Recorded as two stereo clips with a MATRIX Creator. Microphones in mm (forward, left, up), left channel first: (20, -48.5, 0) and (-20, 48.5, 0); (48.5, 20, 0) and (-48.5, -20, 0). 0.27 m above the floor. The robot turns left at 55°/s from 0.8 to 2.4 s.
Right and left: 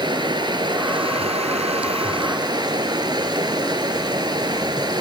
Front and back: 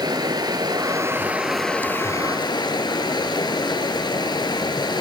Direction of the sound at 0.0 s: 155° left.